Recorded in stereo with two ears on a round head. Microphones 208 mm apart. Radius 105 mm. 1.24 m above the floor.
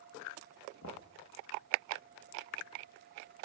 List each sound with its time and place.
0.8 s knocking: 55° left (ahead or behind), 1.6 m